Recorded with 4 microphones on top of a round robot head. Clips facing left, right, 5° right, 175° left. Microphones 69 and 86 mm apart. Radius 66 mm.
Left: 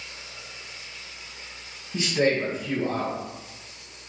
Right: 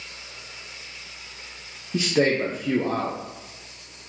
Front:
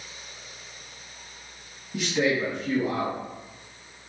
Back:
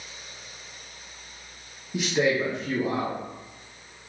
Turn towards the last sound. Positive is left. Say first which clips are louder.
# right 2 dB, back 1 dB
turn(degrees=-105)